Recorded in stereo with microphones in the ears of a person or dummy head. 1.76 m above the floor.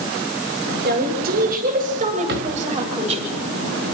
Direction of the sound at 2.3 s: 65° right (ahead or behind).